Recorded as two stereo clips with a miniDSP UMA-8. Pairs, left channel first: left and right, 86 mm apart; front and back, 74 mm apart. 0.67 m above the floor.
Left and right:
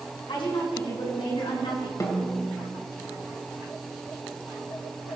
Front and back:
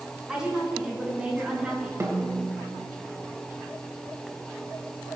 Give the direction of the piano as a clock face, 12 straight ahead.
I don't hear a piano.